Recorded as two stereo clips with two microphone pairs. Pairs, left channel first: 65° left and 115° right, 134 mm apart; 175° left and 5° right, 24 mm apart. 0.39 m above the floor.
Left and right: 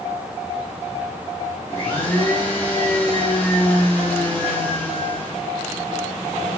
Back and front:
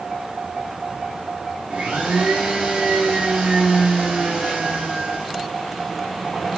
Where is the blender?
10° right, 6 m.